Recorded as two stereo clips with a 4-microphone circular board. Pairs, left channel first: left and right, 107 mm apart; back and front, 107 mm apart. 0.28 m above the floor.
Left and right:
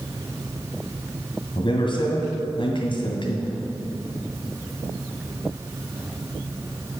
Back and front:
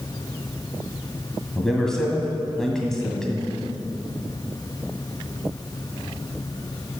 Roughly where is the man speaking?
Left.